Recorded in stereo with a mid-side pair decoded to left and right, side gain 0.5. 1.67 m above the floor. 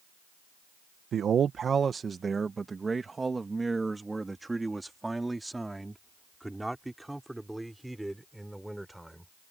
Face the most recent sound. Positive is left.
turn(degrees=-5)